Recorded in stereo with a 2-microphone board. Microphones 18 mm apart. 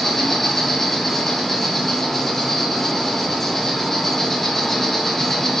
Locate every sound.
0.0 s an insect: 20° left (ahead or behind), 0.9 m